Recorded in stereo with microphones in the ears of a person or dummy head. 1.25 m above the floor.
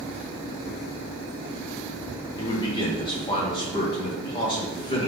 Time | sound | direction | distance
2.4 | a man speaking | 25° left (ahead or behind) | 1.1 m